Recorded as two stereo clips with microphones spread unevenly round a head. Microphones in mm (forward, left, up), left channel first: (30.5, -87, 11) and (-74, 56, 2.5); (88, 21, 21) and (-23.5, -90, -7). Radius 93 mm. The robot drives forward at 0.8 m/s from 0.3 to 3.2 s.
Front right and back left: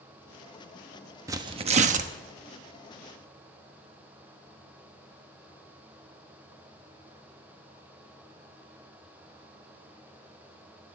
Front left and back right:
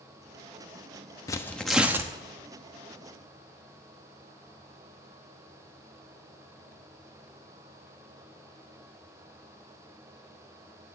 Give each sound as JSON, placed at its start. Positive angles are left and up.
{"t": 1.3, "sound": "tearing paper", "azimuth_deg": 60, "distance_m": 0.7}